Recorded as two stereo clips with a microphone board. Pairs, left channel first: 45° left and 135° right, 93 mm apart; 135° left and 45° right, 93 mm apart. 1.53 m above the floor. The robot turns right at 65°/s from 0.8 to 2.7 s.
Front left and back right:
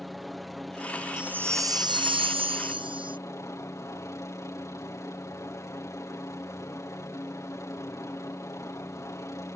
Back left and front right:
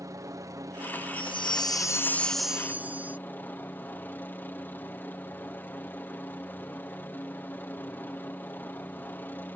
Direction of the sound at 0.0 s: 45° right.